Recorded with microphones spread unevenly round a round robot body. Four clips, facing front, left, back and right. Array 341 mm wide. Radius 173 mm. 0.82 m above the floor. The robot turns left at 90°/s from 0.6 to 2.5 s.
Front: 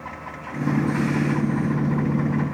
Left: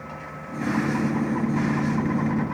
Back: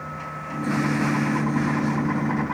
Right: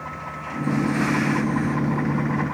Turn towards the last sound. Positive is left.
No sound to turn to.